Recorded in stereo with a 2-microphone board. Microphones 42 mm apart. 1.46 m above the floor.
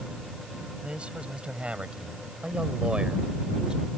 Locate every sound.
0.8 s a man speaking: 25° right (ahead or behind); by 3.9 s 20° right (ahead or behind)